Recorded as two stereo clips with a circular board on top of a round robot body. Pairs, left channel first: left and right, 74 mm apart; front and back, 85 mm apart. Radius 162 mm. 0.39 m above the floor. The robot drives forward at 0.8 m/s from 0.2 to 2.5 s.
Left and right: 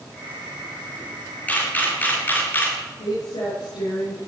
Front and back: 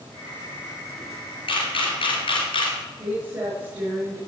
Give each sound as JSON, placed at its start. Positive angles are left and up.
{"t": 1.5, "sound": "a camera shutter", "azimuth_deg": 20, "distance_m": 4.5}
{"t": 3.0, "sound": "a woman speaking", "azimuth_deg": 110, "distance_m": 8.5}